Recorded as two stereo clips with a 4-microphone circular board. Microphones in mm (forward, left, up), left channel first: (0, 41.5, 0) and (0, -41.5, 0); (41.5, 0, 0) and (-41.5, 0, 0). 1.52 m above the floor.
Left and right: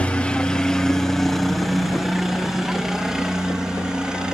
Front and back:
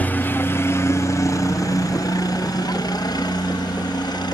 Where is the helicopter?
35° left; by 4.3 s 10° right.